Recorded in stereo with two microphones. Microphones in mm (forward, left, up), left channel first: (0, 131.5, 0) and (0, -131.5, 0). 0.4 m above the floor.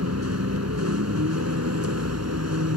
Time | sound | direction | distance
0.0 | a vehicle | 75° right (ahead or behind) | ?